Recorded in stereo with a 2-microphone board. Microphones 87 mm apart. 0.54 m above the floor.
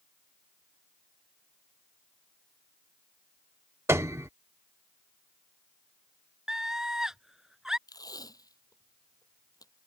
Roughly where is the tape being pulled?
Left.